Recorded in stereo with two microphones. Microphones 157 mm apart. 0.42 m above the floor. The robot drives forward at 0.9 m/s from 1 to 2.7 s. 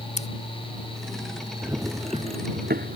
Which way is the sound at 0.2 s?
45° left (ahead or behind).